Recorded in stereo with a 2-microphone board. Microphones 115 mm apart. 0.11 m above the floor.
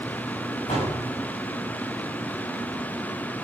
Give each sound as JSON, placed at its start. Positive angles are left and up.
{"t": 0.7, "sound": "a door slam", "side_deg": 65, "distance_m": 8.0}